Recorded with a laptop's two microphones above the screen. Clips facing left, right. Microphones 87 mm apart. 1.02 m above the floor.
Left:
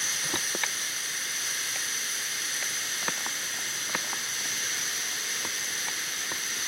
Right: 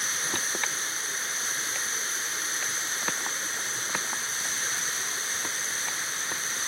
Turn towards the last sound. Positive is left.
turn(degrees=-30)  # may be behind; listen again after turning